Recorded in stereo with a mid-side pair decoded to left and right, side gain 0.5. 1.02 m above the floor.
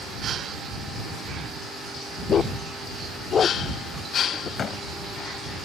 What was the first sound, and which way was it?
A dog barking, 45° left.